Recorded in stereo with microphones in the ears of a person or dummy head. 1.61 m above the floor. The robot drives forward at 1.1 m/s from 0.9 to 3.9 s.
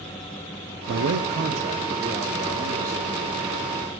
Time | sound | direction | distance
0.9 | a man speaking | 70° right (ahead or behind) | 0.7 m